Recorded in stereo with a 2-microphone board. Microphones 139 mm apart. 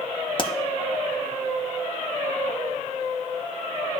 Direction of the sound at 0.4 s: 35° left (ahead or behind).